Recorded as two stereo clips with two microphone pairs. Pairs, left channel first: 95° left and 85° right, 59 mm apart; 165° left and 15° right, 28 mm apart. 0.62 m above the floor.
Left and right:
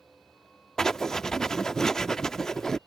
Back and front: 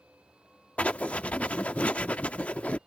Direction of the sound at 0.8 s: 170° left.